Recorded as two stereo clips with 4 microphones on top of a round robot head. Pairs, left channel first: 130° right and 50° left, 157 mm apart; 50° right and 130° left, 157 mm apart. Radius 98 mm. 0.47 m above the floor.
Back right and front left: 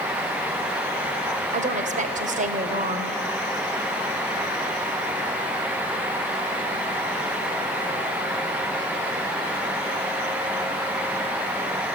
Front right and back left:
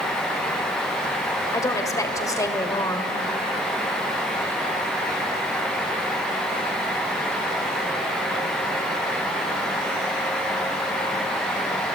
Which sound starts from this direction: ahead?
A woman speaking, at 1.5 s.